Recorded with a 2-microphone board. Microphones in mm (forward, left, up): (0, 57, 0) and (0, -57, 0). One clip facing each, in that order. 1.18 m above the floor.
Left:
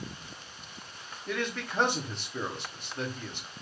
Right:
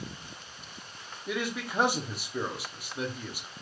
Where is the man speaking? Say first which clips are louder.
Right 1 dB; 10° right (ahead or behind), 0.7 m.